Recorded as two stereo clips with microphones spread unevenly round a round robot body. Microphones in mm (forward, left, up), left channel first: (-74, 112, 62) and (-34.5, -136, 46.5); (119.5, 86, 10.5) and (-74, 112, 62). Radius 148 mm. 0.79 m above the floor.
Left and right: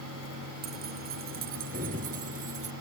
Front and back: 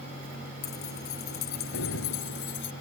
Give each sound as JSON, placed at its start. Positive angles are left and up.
{"t": 0.6, "sound": "keys jangling", "azimuth_deg": -25}